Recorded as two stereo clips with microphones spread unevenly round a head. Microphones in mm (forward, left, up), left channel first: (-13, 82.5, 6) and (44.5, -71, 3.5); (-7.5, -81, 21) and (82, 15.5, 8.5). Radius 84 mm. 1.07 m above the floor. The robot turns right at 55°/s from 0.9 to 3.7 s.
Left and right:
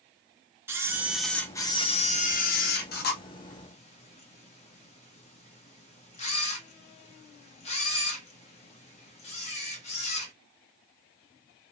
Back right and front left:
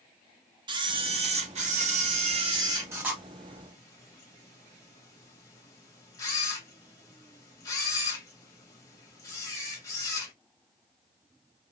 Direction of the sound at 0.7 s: 5° left.